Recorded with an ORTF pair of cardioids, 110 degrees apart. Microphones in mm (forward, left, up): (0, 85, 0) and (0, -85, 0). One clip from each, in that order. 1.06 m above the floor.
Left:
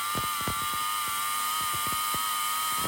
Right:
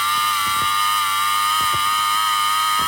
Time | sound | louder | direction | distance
0.0 | a machine running | right 12 dB | 65° right | ?